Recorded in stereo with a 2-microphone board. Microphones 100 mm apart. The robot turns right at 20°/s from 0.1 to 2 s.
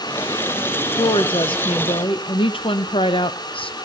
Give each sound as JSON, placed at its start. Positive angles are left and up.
{"t": 0.9, "sound": "a woman speaking", "side_deg": 55, "distance_m": 0.6}